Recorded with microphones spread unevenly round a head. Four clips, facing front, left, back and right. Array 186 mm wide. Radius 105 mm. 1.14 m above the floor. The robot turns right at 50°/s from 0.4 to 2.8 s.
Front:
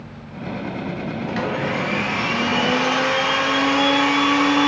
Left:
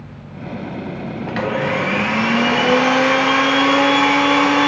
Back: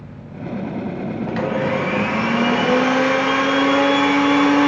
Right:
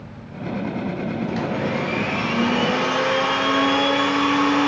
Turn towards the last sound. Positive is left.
turn(degrees=145)